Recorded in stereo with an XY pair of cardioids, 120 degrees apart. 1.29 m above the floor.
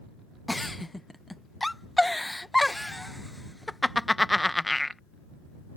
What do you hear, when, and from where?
0.5 s a giggle: 5° left